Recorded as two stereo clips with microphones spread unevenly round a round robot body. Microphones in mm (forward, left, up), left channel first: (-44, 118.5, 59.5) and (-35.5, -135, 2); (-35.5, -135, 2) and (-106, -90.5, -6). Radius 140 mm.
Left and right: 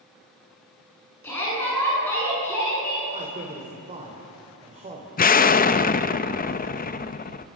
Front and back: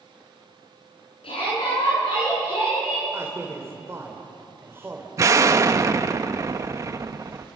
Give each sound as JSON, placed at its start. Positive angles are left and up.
{"t": 1.2, "sound": "a shout", "azimuth_deg": 10, "distance_m": 9.0}
{"t": 3.1, "sound": "a man speaking", "azimuth_deg": -150, "distance_m": 3.5}
{"t": 5.2, "sound": "an explosion", "azimuth_deg": 150, "distance_m": 0.8}